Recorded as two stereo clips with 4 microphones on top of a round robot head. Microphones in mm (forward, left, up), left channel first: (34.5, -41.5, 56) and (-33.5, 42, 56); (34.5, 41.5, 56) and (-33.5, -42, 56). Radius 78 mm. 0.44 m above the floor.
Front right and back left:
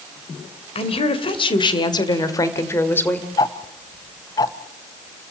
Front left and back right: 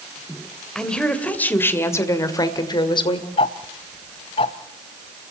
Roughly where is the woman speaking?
Ahead right.